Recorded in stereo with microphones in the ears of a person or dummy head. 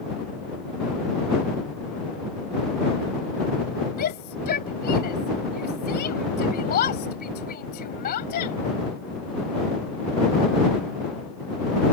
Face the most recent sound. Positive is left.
turn(degrees=50)  # may be behind; listen again after turning